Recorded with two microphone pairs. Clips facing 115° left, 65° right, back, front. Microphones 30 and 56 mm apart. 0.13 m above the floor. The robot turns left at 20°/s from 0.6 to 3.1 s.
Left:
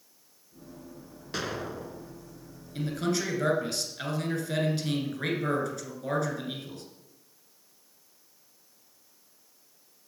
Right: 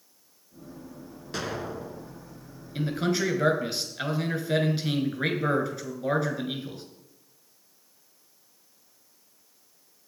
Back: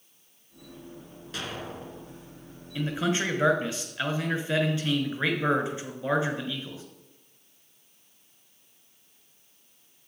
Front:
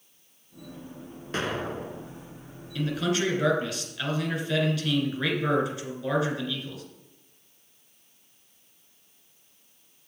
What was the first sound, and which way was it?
An explosion, 30° left.